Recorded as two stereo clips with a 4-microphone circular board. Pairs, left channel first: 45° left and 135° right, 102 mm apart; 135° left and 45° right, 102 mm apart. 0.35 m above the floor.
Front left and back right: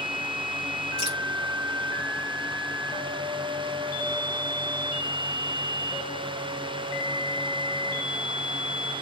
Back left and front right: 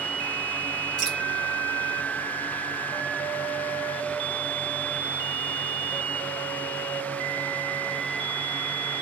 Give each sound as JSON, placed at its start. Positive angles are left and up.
{"t": 1.0, "sound": "dripping", "azimuth_deg": -130, "distance_m": 5.5}